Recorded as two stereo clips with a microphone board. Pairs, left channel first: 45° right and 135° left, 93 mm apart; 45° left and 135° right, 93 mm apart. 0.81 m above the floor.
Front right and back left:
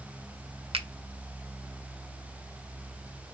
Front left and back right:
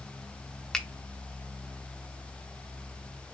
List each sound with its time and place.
0.7 s a finger snap: 130° left, 0.6 m